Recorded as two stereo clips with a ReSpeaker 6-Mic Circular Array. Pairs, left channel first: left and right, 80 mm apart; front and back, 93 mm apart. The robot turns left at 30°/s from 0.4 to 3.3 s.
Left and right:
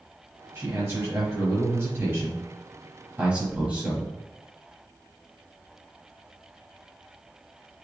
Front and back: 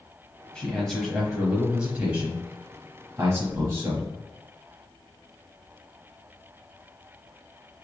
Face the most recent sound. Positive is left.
turn(degrees=-150)